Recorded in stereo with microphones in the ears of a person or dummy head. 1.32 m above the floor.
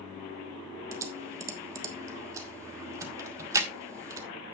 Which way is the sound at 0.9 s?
15° right (ahead or behind).